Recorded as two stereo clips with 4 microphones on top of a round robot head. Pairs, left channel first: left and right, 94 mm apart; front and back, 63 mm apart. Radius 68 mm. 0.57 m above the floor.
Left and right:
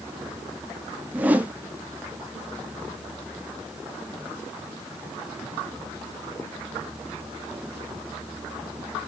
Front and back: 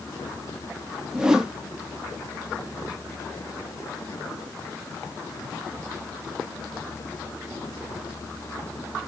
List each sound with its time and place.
1.1 s a whoosh: 125° right, 0.8 m